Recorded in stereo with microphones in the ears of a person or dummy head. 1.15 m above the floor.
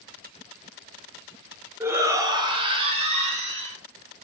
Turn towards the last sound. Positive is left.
turn(degrees=-40)  # may be behind; listen again after turning